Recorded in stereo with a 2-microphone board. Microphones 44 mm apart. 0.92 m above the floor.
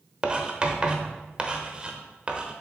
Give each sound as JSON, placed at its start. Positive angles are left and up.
{"t": 0.2, "sound": "writing", "side_deg": -20, "distance_m": 1.0}